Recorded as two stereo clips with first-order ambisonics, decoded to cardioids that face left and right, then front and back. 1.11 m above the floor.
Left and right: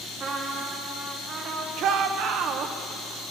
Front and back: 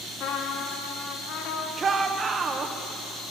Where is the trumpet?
30° right, 1.4 m.